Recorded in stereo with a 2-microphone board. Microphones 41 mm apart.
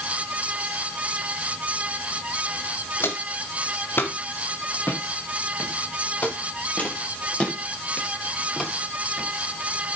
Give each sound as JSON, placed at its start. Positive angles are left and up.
{"t": 3.0, "sound": "footsteps", "side_deg": 75, "distance_m": 3.0}